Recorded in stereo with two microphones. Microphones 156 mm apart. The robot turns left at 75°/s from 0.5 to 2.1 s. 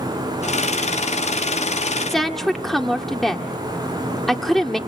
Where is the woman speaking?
Centre (ahead or behind), 1.7 m.